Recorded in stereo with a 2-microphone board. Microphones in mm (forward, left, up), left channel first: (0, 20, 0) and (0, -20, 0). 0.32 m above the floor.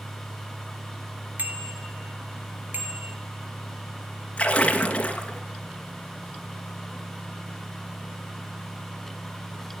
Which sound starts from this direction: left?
A splash, at 4.4 s.